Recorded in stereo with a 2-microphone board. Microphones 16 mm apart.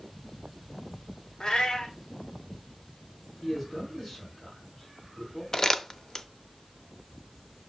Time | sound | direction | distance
1.4 | a cat meowing | 85° left | 1.7 m
3.4 | a man speaking | 25° left (ahead or behind) | 3.5 m
5.5 | crumpling | 50° left (ahead or behind) | 0.6 m